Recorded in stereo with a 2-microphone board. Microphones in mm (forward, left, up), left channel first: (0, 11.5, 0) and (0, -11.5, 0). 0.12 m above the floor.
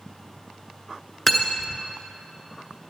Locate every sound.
1.3 s cutlery clinking: 5° left (ahead or behind), 0.8 m